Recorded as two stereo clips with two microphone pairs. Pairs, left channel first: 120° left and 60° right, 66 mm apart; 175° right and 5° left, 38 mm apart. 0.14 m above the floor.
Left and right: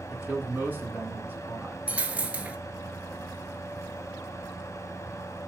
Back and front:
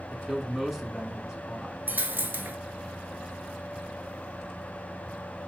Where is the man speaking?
70° right, 1.4 m.